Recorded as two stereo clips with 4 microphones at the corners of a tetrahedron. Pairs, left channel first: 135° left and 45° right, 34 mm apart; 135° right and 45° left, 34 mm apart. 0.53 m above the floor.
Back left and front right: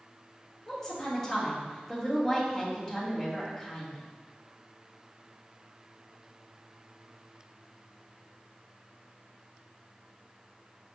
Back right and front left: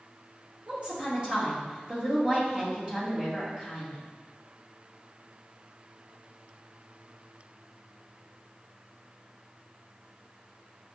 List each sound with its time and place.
0.7 s a woman speaking: 75° left, 1.4 m